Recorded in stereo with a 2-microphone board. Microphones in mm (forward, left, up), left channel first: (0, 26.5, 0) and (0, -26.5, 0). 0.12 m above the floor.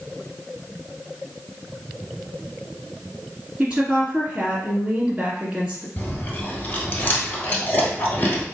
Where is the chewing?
40° left (ahead or behind), 1.4 m.